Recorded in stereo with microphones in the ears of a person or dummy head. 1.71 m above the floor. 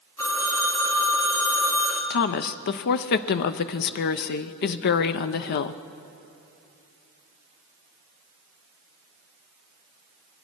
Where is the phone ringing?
10° left (ahead or behind), 1.8 m.